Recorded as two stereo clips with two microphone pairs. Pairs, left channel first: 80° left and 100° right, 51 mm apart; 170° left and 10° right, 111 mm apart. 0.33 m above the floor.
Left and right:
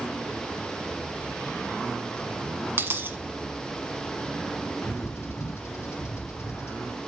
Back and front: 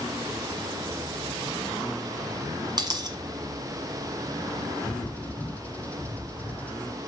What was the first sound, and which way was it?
A dropped coin, 60° right.